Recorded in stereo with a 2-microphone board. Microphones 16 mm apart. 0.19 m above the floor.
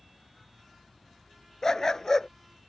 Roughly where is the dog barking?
Left.